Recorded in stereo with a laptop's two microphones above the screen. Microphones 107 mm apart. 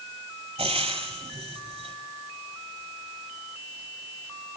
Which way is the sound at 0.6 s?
70° right (ahead or behind).